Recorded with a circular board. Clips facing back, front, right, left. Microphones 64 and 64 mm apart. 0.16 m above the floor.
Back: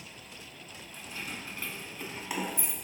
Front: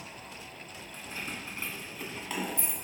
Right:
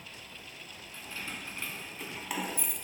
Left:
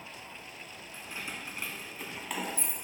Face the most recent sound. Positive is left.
turn(degrees=-155)